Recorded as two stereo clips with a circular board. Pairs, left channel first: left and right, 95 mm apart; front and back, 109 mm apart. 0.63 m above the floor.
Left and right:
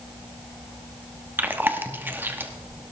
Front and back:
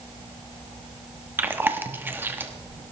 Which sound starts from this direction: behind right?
Chewing, at 1.4 s.